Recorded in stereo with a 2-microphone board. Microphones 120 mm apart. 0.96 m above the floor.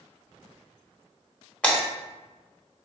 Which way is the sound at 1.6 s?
10° left (ahead or behind).